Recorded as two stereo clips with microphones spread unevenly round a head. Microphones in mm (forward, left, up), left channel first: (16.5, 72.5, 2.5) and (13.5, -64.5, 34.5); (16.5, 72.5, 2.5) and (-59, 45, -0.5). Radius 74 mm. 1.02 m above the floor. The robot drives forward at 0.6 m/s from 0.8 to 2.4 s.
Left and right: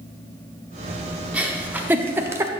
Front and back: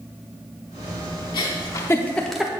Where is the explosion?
I don't hear an explosion.